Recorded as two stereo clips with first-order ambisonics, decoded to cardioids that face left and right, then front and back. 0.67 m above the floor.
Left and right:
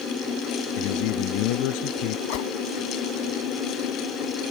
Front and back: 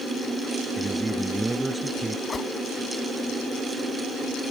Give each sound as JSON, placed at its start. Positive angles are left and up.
{"t": 0.8, "sound": "a man speaking", "azimuth_deg": 100}
{"t": 2.3, "sound": "a whoosh", "azimuth_deg": 75}